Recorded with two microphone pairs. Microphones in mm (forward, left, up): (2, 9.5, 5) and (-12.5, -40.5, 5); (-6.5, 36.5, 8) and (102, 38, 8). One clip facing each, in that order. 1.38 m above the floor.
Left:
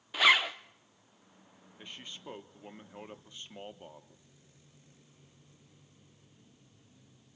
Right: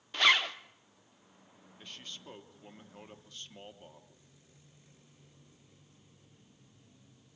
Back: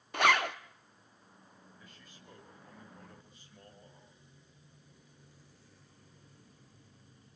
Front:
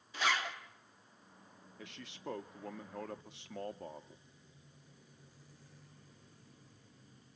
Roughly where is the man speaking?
Ahead.